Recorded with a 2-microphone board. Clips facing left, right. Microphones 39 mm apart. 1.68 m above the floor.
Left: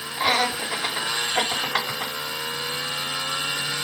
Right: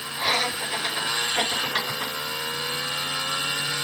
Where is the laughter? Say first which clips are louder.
Left 3 dB; 70° left (ahead or behind), 5.5 m.